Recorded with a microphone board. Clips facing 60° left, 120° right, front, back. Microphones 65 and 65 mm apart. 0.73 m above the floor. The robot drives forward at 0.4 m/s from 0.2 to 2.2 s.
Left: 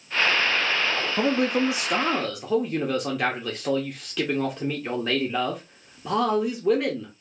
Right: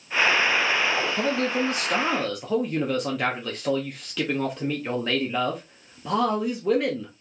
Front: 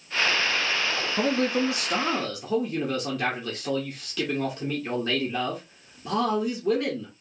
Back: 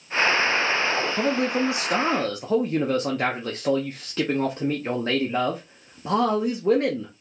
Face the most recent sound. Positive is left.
turn(degrees=150)